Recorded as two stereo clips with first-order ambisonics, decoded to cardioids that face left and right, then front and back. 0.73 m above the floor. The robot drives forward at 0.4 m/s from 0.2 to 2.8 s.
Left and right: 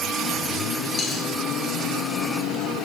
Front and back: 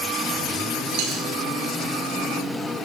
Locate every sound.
0.9 s a dropped coin: 155° left, 5.5 m; by 1.3 s 160° left, 6 m